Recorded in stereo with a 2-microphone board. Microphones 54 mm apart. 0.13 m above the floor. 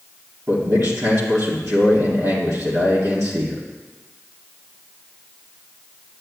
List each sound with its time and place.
0.5 s a man speaking: 60° right (ahead or behind), 2.5 m